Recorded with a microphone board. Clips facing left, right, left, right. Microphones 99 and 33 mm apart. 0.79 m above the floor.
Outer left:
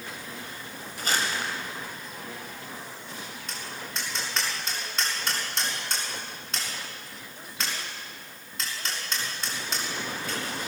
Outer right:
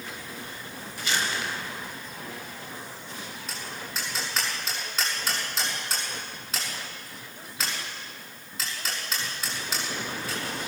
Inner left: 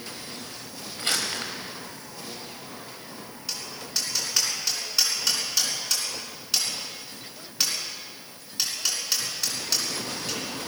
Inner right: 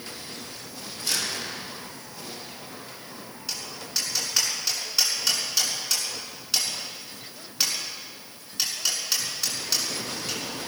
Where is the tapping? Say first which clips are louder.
Even, even; centre (ahead or behind), 6.5 m.